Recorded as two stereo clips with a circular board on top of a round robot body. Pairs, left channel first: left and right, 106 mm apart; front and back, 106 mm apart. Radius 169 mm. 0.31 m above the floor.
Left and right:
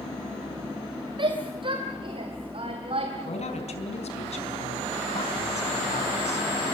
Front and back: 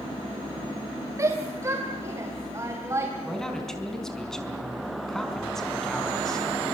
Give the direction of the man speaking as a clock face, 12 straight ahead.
9 o'clock.